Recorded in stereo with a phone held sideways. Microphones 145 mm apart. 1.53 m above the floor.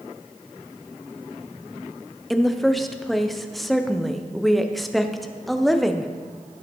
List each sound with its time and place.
2.3 s a woman speaking: centre (ahead or behind), 0.6 m